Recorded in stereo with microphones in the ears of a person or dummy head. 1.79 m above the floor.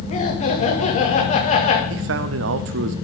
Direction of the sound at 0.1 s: 40° left (ahead or behind).